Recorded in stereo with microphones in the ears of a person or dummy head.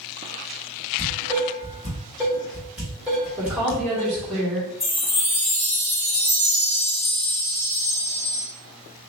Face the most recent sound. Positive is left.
turn(degrees=10)  # may be behind; listen again after turning